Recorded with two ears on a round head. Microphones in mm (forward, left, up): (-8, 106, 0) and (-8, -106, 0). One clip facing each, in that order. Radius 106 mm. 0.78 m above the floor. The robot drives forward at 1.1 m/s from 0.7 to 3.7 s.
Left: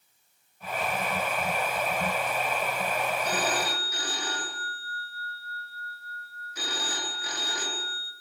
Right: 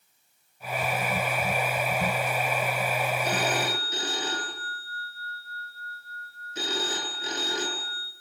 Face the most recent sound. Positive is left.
turn(degrees=-25)  # may be behind; listen again after turning